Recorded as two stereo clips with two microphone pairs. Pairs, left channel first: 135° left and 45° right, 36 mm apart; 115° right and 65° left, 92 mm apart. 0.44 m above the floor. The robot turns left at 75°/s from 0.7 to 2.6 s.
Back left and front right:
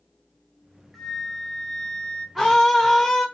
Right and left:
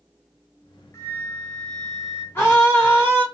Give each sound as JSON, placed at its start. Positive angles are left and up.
{"t": 0.9, "sound": "a flute", "azimuth_deg": -135, "distance_m": 0.6}
{"t": 2.4, "sound": "a scream", "azimuth_deg": -120, "distance_m": 0.7}